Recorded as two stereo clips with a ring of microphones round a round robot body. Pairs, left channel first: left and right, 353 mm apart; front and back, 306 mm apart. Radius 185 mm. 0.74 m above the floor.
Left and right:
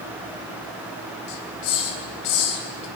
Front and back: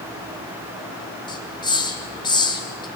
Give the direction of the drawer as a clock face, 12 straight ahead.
No drawer in this recording.